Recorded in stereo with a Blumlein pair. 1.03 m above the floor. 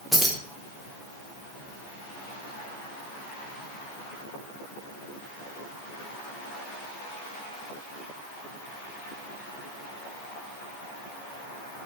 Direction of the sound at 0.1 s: Straight ahead.